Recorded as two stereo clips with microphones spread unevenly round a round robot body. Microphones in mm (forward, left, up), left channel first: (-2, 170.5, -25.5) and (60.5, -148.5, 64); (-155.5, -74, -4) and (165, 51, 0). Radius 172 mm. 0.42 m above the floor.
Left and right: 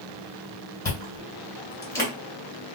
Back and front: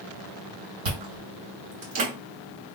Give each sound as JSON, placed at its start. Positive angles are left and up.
{"t": 0.8, "sound": "chewing", "azimuth_deg": 30, "distance_m": 2.0}